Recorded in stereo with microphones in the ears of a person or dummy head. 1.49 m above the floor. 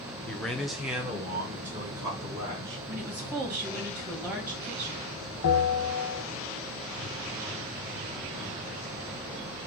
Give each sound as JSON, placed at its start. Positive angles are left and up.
{"t": 0.3, "sound": "a man speaking", "side_deg": 10, "distance_m": 0.7}
{"t": 2.9, "sound": "a woman speaking", "side_deg": -10, "distance_m": 1.5}
{"t": 5.4, "sound": "a bell", "side_deg": 65, "distance_m": 1.1}